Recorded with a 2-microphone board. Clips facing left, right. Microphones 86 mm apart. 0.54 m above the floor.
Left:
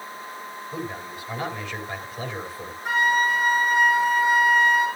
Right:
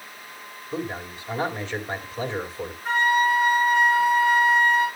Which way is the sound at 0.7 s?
30° right (ahead or behind).